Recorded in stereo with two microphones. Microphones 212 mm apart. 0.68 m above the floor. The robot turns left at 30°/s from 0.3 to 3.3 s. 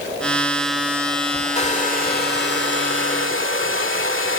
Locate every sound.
1.6 s a hair dryer: 150° left, 2 m; by 4.4 s 95° left, 2 m